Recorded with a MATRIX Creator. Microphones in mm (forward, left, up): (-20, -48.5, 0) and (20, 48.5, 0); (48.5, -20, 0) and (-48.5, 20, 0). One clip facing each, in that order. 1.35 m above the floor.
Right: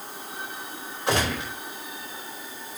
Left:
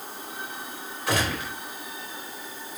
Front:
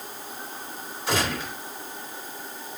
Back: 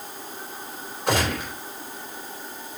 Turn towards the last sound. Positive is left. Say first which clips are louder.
# right 2 dB, back 3 dB
turn(degrees=-175)